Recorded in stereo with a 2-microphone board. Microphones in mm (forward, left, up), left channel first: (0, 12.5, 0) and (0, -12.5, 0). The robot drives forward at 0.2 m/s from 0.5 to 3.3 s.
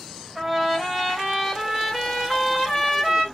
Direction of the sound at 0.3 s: Centre (ahead or behind).